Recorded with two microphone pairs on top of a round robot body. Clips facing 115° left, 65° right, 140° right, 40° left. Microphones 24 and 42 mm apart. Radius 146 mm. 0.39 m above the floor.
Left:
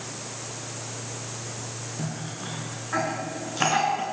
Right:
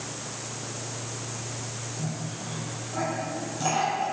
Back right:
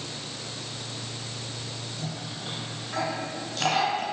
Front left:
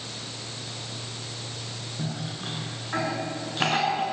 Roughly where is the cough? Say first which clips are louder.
Left 1 dB, front left 5 dB; left.